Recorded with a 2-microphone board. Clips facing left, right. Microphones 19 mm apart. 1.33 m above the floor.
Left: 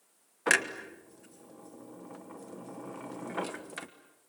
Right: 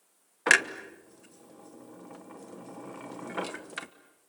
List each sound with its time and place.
0.5 s a clunk: 20° right (ahead or behind), 1.1 m